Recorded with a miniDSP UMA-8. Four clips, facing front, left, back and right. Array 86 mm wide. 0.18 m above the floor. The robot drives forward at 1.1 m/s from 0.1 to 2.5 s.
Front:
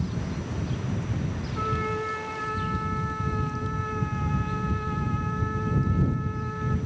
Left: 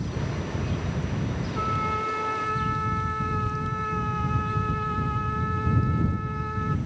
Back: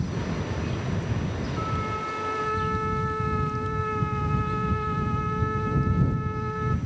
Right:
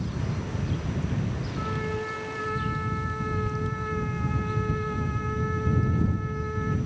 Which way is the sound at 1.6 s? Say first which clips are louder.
Left 5 dB, front 4 dB; 85° left.